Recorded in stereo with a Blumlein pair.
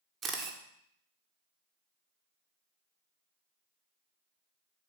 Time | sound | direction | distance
0.2 | a camera shutter | 25° right | 1.6 m